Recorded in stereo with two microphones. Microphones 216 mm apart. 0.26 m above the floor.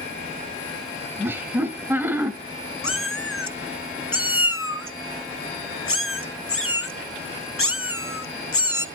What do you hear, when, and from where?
1.2 s laughter: 10° right (ahead or behind), 1.4 m
2.8 s a cat meowing: 80° left, 0.8 m